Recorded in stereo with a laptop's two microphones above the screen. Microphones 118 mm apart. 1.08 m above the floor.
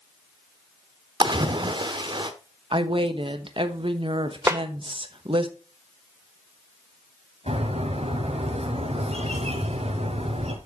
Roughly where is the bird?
Right.